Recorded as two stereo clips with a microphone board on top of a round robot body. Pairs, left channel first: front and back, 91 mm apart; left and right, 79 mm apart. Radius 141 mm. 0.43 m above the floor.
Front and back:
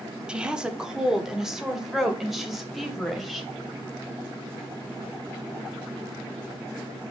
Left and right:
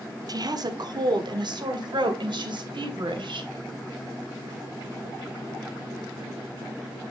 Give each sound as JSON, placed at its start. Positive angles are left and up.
{"t": 0.3, "sound": "a woman speaking", "azimuth_deg": -100, "distance_m": 1.3}